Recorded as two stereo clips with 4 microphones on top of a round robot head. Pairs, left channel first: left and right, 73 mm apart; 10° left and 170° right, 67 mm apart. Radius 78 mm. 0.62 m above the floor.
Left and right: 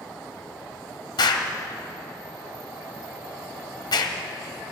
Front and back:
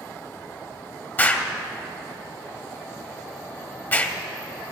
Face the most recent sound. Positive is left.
turn(degrees=70)